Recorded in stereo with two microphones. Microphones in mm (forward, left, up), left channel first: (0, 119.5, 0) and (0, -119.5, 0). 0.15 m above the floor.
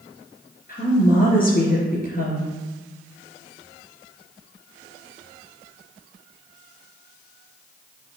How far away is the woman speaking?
About 2.5 m.